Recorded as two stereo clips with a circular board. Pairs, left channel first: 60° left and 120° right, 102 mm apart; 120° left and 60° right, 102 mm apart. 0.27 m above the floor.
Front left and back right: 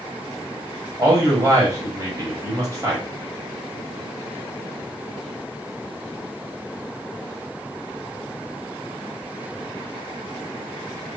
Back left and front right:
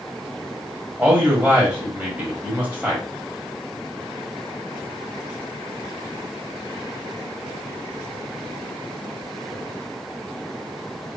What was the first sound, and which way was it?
A man speaking, 115° right.